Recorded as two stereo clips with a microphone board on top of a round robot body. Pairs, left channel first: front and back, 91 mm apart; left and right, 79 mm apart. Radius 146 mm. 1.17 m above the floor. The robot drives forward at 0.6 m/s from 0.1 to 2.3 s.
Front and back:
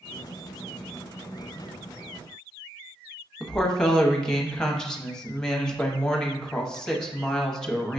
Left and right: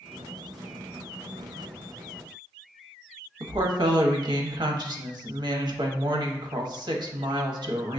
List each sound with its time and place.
3.4 s a woman speaking: 85° right, 0.8 m